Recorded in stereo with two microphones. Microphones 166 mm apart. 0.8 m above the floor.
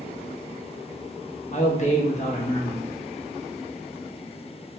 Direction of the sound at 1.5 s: 45° left (ahead or behind).